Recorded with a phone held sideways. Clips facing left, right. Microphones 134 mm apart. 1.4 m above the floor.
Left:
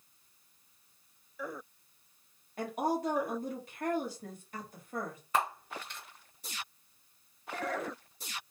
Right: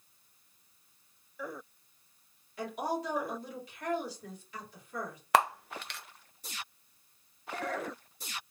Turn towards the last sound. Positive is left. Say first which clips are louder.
# right 5 dB
turn(degrees=-80)